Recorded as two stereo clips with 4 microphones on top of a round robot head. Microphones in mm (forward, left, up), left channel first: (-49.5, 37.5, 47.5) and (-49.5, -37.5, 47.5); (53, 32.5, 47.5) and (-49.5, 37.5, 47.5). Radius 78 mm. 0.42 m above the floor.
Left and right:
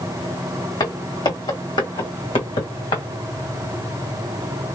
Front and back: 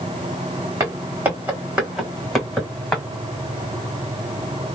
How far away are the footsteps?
About 2 m.